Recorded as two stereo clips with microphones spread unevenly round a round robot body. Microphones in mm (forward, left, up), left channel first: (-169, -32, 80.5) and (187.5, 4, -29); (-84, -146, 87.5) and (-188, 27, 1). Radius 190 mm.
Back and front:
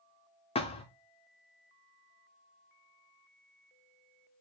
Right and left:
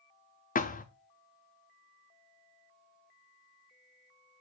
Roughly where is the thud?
Right.